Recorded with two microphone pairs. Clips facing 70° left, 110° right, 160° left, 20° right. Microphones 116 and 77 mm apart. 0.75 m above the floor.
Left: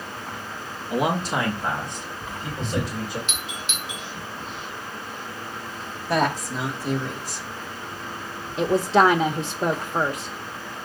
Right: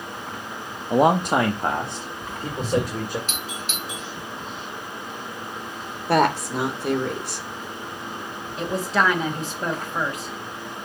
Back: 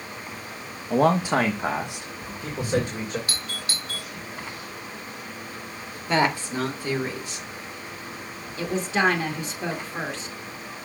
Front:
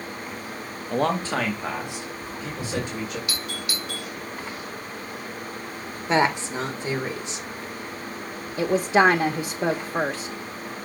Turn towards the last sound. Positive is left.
turn(degrees=15)